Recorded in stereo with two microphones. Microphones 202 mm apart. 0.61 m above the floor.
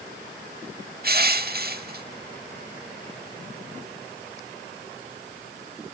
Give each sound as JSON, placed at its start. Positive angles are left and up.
{"t": 1.0, "sound": "crushing", "side_deg": -55, "distance_m": 0.8}